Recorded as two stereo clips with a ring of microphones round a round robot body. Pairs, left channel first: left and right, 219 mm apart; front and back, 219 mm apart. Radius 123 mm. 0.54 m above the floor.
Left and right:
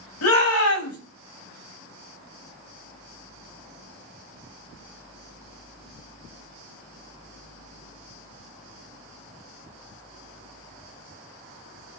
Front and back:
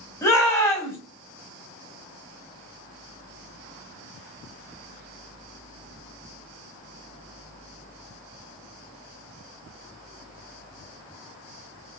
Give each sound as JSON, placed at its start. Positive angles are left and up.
{"t": 0.2, "sound": "a shout", "azimuth_deg": 80, "distance_m": 4.0}